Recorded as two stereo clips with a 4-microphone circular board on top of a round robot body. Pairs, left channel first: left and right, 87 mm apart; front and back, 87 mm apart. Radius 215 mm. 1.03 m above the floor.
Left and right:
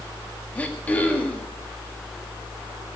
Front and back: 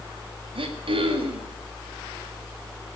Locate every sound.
0.6 s throat clearing: 165° left, 2 m